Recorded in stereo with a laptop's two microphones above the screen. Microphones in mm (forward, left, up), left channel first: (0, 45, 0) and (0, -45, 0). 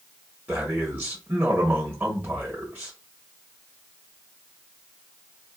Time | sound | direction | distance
0.5 | a man speaking | 20° right (ahead or behind) | 1.2 m